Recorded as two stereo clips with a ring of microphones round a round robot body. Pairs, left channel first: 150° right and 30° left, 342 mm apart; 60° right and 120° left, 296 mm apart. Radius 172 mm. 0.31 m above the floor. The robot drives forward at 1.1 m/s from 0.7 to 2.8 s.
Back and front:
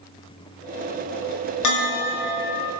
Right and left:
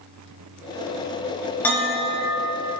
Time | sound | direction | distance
1.6 | a bell | 140° right | 1.4 m